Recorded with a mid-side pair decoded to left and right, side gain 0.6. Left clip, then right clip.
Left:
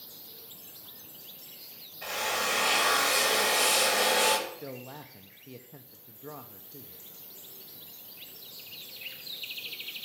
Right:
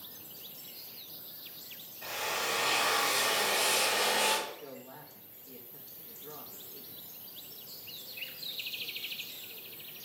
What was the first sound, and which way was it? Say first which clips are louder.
A drill: left 4 dB; 40° left.